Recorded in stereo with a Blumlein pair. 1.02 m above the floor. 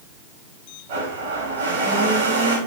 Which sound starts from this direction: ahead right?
A blender, at 0.9 s.